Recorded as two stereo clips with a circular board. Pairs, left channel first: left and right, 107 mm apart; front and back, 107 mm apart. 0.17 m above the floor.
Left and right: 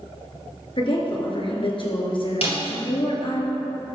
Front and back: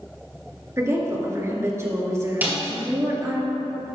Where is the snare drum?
110° left, 4 m.